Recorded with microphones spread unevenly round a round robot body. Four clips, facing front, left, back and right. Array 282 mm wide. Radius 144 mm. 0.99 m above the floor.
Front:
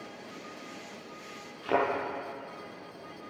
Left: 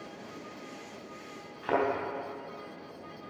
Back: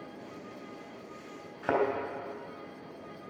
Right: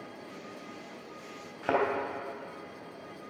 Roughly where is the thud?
Behind right.